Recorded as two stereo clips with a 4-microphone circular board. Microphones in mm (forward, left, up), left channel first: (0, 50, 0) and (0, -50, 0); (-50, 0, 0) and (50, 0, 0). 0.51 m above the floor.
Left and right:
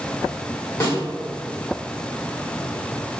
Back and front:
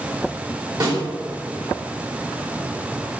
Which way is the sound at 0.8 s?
35° left.